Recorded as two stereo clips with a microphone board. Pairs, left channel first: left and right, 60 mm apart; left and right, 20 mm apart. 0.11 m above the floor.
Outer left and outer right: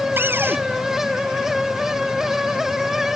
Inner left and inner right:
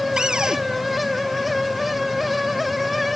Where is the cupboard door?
40° right (ahead or behind).